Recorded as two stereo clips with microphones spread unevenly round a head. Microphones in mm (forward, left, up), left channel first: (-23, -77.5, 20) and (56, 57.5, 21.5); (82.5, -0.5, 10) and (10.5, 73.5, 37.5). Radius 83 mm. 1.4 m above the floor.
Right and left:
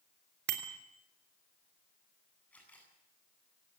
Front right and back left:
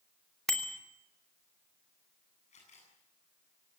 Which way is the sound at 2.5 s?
40° right.